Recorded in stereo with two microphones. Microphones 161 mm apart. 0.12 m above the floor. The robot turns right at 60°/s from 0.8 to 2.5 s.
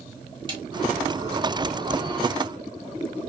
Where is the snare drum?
30° right (ahead or behind), 1.0 m.